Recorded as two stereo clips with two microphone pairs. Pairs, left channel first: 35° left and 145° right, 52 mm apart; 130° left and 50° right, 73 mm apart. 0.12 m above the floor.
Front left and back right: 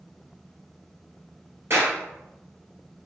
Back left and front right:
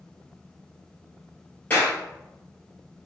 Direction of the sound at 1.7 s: 165° right.